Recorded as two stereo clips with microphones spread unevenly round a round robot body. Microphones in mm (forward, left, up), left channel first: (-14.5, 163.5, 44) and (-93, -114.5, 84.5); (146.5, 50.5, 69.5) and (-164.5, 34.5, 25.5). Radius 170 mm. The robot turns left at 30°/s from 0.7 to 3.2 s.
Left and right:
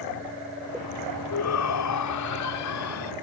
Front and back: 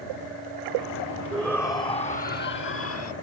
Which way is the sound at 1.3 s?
95° left.